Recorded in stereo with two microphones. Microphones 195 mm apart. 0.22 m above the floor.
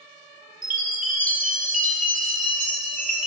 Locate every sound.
0.6 s a chime: 40° right (ahead or behind), 0.8 m